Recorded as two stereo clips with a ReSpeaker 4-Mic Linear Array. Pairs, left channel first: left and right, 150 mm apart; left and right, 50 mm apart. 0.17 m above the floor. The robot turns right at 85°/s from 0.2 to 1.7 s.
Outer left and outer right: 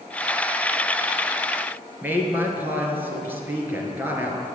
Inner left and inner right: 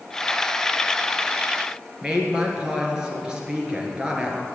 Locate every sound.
2.0 s a woman speaking: 15° right (ahead or behind), 2.5 m